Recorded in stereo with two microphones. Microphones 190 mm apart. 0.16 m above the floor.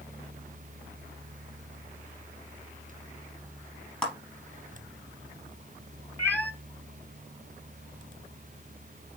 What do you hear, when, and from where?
4.0 s a clap: 5° left (ahead or behind), 4 m
6.2 s a cat meowing: 10° left (ahead or behind), 1.0 m